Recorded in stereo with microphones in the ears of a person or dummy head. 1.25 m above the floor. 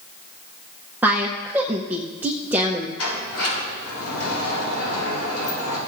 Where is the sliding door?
85° left, 5.5 m.